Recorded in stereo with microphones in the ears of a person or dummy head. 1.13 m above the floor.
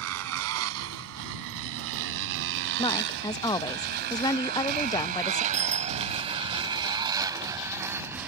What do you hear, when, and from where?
0.0 s a motorcycle: 80° right; by 8.3 s 10° right (ahead or behind)
2.8 s a woman speaking: 20° left (ahead or behind)
5.5 s a bicycle bell: 35° right (ahead or behind)